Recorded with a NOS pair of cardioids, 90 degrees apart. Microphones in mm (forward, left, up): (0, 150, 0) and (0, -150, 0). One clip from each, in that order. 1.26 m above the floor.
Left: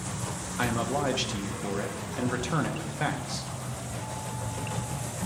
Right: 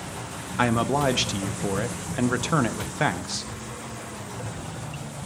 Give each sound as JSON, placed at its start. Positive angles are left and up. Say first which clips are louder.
{"t": 0.6, "sound": "a man speaking", "louder": "right 6 dB", "azimuth_deg": -35, "distance_m": 0.9}